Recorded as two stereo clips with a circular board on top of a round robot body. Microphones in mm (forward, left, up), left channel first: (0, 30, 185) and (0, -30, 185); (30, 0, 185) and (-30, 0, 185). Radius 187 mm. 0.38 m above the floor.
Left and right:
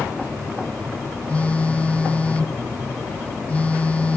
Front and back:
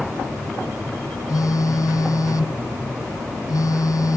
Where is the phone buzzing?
20° left.